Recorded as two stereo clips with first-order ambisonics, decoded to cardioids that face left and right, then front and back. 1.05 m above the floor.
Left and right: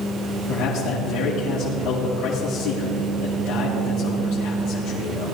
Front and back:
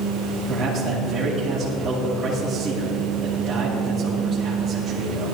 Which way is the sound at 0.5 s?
100° left.